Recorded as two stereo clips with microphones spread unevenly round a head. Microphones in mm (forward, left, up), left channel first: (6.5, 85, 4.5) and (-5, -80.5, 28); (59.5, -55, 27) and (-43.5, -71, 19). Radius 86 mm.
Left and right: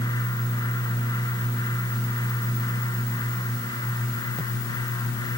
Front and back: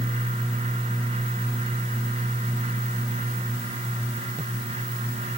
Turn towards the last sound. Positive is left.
No sound to turn to.